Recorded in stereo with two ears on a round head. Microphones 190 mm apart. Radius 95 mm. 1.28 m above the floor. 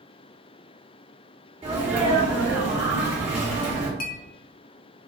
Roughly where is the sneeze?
Right.